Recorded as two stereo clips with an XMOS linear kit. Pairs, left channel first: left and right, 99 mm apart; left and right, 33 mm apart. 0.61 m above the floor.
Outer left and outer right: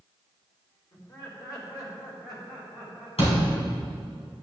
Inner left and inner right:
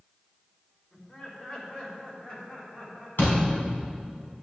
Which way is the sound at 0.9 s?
40° left (ahead or behind).